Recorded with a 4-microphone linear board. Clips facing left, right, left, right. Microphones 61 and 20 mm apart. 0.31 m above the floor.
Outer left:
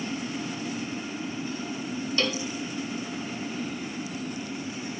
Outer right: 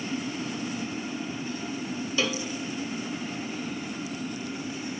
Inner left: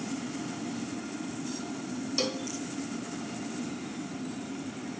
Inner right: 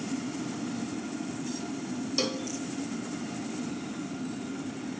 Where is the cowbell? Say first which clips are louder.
Even, inner right 1 dB; 5° right (ahead or behind), 0.6 m.